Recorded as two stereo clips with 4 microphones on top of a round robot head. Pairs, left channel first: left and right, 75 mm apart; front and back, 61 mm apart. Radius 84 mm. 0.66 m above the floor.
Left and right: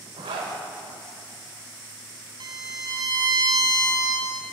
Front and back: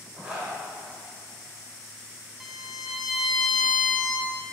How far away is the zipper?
About 0.9 m.